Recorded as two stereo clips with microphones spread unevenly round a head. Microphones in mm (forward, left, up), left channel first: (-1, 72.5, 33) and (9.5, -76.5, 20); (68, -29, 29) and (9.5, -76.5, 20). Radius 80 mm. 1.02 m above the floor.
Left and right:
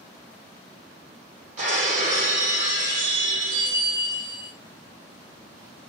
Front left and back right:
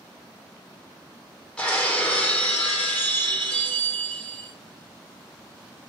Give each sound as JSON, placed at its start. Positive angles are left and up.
{"t": 1.6, "sound": "breaking glass", "azimuth_deg": -40, "distance_m": 5.0}